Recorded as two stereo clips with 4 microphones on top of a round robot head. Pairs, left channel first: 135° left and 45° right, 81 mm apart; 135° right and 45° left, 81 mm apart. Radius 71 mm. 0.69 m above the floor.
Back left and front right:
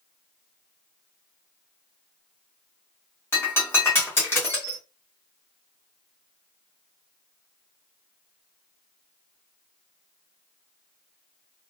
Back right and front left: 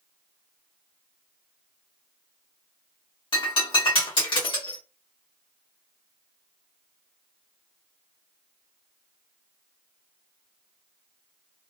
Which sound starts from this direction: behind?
Breaking glass, at 3.3 s.